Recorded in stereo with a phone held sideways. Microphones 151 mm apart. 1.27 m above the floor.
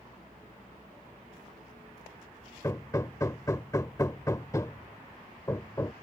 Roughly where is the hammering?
Left.